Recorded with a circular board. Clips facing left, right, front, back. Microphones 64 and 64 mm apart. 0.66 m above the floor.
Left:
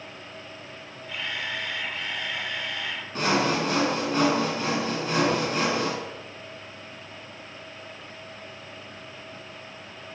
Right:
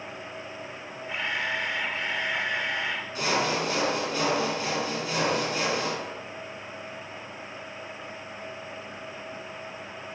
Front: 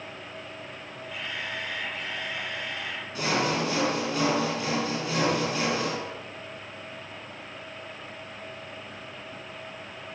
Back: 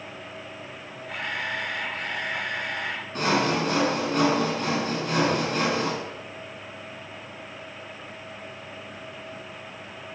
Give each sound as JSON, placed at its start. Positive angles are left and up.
{"t": 1.1, "sound": "a camera shutter", "azimuth_deg": -155, "distance_m": 1.2}
{"t": 3.1, "sound": "sawing", "azimuth_deg": 140, "distance_m": 2.5}